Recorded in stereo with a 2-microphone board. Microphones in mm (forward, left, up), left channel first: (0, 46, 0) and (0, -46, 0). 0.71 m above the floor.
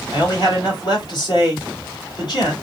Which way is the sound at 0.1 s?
55° left (ahead or behind).